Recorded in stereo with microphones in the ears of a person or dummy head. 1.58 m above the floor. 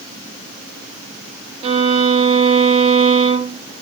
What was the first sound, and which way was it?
A violin, 40° right (ahead or behind).